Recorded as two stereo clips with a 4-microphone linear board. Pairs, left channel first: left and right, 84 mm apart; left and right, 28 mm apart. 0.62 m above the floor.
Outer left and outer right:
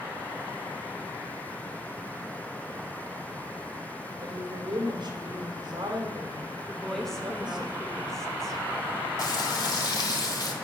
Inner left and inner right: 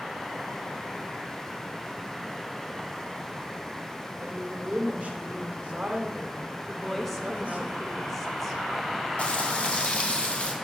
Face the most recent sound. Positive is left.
turn(degrees=50)  # may be behind; listen again after turning